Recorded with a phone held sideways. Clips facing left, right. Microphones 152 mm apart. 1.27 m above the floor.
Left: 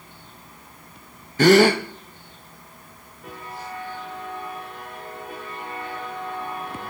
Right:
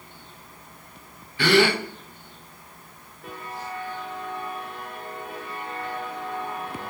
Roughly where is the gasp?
Left.